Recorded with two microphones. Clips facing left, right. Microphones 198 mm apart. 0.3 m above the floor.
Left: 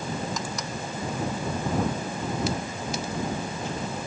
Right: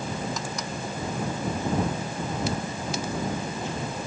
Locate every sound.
Only background noise.